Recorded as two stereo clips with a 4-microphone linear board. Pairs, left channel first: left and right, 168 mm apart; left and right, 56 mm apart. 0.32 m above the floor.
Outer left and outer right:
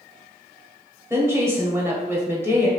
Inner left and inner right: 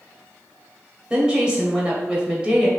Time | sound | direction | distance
1.1 | a woman speaking | 15° right (ahead or behind) | 1.3 m